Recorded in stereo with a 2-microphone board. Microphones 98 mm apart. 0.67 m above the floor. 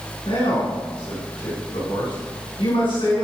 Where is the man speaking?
65° left (ahead or behind), 6.5 m.